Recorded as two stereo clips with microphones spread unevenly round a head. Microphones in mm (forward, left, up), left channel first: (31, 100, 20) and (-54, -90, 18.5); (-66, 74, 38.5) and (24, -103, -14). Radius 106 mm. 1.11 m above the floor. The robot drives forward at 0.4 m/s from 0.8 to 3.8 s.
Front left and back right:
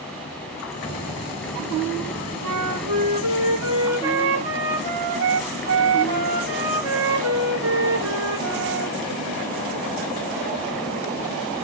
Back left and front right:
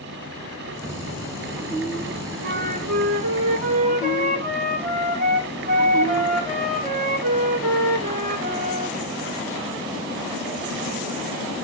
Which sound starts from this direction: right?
A flute, at 2.4 s.